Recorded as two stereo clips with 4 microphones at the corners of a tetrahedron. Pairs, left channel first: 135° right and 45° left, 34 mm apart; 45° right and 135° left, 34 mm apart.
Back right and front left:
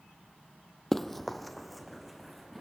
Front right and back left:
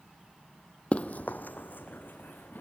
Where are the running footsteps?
55° right, 0.7 m; by 2.6 s 40° right, 2.5 m.